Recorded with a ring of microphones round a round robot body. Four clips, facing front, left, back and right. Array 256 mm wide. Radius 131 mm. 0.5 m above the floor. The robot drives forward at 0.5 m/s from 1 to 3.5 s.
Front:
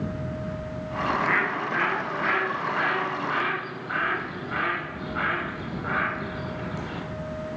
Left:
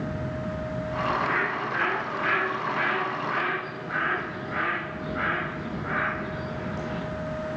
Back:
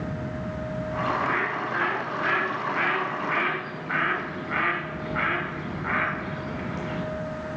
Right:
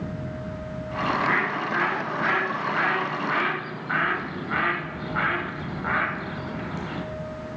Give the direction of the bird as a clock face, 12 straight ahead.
2 o'clock.